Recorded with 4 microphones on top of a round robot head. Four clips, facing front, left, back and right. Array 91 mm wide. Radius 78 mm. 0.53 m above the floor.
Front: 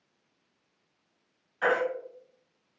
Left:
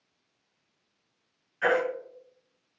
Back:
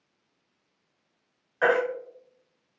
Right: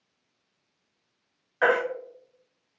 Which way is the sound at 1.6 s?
125° right.